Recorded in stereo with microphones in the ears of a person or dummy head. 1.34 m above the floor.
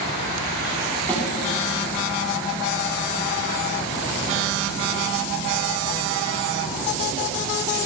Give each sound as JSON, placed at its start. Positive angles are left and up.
{"t": 1.1, "sound": "a snare drum", "side_deg": 10, "distance_m": 2.5}